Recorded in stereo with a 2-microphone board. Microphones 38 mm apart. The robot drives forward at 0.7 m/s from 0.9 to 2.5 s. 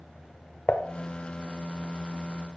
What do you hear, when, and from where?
0.7 s dishes clattering: 40° left (ahead or behind), 0.7 m